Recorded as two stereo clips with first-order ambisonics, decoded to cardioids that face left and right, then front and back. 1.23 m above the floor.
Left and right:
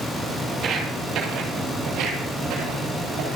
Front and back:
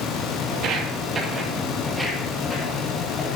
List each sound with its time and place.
0.5 s footsteps: 140° right, 2 m; by 3.4 s 65° right, 4 m